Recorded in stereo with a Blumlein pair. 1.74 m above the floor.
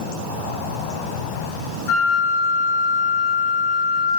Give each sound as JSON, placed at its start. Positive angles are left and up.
{"t": 1.9, "sound": "a flute", "azimuth_deg": 45, "distance_m": 0.7}